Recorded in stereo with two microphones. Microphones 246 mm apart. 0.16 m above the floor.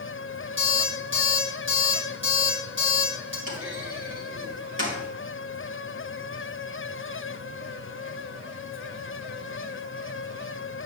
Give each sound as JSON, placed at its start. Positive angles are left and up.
{"t": 0.6, "sound": "an alarm clock", "side_deg": -50, "distance_m": 3.0}
{"t": 3.5, "sound": "a clunk", "side_deg": -55, "distance_m": 3.0}